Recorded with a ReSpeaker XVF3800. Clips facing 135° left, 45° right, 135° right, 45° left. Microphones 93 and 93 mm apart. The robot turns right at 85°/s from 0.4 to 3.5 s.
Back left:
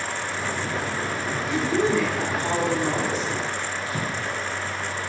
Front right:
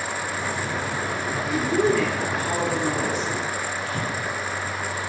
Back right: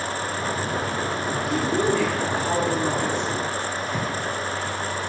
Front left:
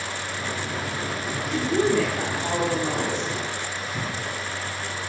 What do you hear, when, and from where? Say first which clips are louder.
1.5 s a woman speaking: front right 1 dB, front left 1 dB; 20° left, 1.7 m; by 3.3 s 170° left, 1.7 m
3.9 s breathing: front right 1 dB, back right 4 dB; 160° right, 0.9 m